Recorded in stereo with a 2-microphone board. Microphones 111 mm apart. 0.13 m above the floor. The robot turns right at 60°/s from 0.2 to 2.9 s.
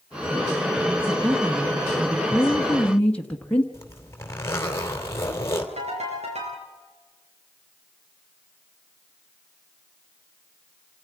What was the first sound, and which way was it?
A woman speaking, 25° right (ahead or behind).